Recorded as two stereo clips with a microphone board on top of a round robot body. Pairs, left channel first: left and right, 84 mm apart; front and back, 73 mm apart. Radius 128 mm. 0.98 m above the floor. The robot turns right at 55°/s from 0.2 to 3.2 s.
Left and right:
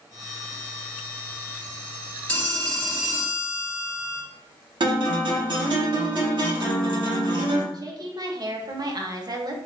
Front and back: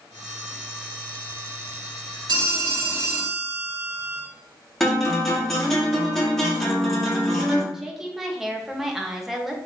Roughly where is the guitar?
Right.